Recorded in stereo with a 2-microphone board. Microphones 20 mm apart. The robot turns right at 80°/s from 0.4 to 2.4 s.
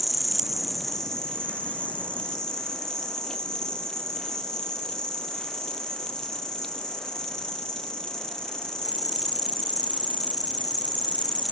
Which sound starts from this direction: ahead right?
An insect, at 0.0 s.